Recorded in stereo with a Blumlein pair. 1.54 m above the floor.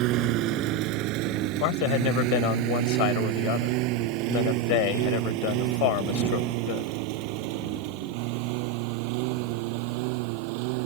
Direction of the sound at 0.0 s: 40° right.